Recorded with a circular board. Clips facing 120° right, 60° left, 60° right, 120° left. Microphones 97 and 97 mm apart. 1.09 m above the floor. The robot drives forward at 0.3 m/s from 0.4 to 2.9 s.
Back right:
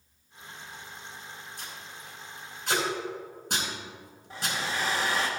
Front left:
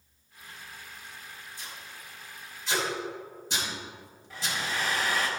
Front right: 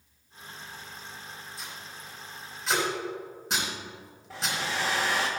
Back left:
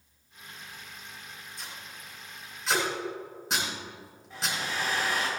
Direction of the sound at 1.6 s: 145° right.